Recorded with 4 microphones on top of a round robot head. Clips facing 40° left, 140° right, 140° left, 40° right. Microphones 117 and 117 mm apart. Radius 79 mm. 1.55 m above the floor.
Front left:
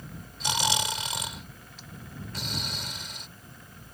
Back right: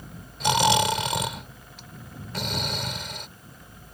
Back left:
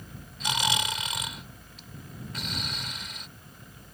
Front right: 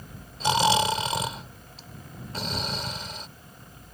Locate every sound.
0.4 s snoring: 105° right